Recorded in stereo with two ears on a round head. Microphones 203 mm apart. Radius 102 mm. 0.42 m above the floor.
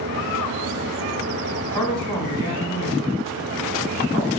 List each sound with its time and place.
1.7 s a man speaking: 15° right (ahead or behind), 3.5 m